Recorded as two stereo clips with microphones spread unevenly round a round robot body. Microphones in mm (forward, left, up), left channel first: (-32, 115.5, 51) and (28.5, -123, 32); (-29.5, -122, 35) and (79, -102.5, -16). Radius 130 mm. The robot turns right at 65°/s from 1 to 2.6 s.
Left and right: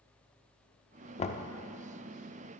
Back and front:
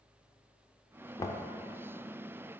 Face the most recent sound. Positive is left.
turn(degrees=-170)